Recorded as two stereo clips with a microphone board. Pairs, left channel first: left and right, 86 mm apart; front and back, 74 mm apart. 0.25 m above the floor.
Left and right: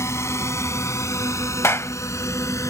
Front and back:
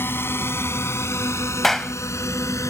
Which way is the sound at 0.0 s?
45° left.